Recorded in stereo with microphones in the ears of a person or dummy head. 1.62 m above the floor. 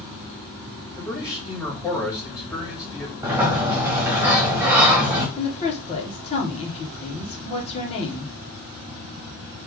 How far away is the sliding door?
About 0.9 m.